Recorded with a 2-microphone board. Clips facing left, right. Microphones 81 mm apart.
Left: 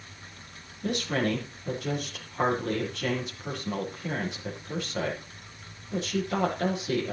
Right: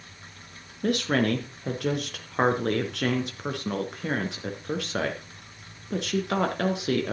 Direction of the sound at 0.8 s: 75° right (ahead or behind).